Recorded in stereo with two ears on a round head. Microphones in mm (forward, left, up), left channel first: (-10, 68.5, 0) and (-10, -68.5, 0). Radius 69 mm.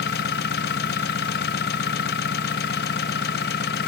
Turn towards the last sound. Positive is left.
turn(degrees=75)  # may be behind; listen again after turning